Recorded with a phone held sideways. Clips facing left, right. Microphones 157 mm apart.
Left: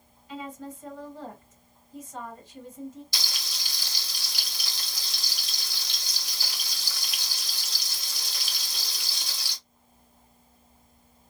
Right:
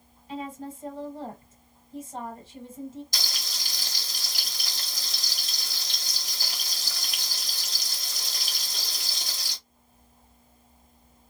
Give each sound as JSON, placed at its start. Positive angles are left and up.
{"t": 0.3, "sound": "a woman speaking", "side_deg": -30, "distance_m": 1.4}
{"t": 3.1, "sound": "frying", "side_deg": -45, "distance_m": 1.1}